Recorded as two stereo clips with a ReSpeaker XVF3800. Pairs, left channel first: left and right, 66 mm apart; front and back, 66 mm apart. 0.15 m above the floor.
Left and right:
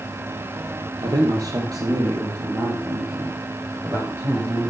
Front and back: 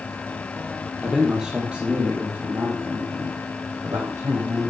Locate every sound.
1.0 s a man speaking: 95° right, 4 m; by 4.7 s 140° right, 6.5 m